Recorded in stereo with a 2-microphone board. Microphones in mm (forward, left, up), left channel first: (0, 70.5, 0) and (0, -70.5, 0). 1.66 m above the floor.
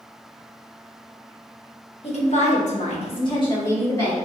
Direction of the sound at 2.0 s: 45° left (ahead or behind).